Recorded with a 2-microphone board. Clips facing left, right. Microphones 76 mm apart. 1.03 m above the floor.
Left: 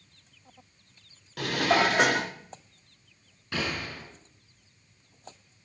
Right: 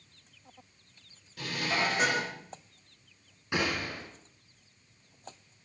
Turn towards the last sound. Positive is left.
turn(degrees=-15)  # may be behind; listen again after turning